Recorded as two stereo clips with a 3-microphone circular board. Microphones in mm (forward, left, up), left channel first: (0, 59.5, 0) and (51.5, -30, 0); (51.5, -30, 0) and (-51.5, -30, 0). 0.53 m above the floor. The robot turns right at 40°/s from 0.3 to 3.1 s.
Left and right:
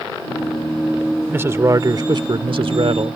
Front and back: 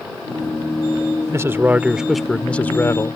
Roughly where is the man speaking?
Behind right.